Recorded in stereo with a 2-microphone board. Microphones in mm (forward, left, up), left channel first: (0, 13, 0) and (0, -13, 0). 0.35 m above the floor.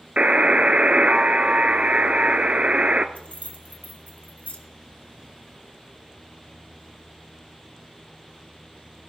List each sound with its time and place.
0.2 s a buzzer: 50° right (ahead or behind), 0.8 m
3.1 s keys jangling: 65° left (ahead or behind), 2 m